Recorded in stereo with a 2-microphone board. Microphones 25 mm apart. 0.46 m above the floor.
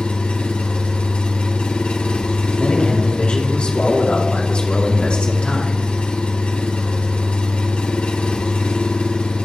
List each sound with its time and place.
0.0 s an engine running: 55° left (ahead or behind), 2 m
2.6 s a man speaking: 50° left (ahead or behind), 3.5 m